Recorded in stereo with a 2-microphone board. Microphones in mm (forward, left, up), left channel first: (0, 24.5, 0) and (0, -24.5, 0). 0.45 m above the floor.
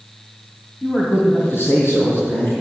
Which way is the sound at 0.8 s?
55° left (ahead or behind).